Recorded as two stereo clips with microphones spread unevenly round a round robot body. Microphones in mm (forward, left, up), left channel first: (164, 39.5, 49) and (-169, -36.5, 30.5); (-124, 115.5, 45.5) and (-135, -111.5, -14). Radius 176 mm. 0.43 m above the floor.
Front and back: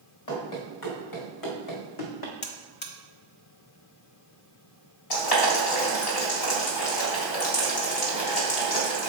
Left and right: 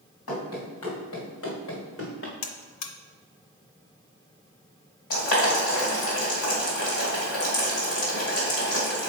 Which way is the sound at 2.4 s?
75° left.